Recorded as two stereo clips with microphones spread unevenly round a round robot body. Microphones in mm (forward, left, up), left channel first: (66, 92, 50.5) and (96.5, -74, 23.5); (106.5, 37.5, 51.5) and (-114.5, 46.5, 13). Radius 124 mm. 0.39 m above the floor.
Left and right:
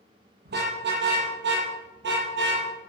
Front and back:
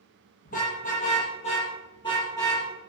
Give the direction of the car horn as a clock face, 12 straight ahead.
2 o'clock.